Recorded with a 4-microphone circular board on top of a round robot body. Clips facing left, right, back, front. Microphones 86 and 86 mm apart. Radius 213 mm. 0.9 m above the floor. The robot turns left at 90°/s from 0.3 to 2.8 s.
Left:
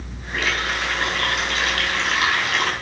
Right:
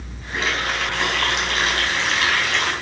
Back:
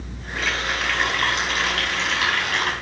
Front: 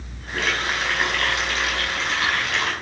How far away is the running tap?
About 5.5 m.